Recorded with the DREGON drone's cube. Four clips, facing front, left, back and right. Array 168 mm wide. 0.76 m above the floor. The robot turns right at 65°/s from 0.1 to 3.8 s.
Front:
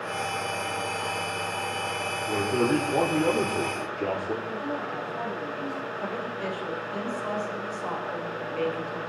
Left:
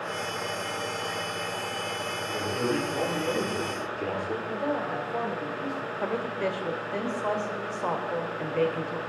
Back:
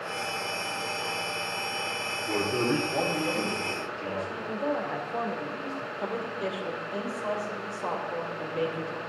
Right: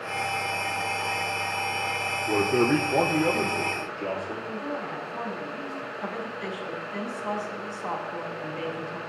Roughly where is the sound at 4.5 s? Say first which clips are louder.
Left 3 dB, back 2 dB; behind left.